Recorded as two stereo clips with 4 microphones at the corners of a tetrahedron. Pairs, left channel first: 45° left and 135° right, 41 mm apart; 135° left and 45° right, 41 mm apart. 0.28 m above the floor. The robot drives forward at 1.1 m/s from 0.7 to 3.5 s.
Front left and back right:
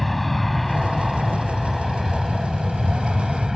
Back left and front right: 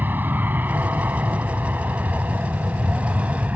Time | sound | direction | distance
0.0 | an aircraft | 40° right | ?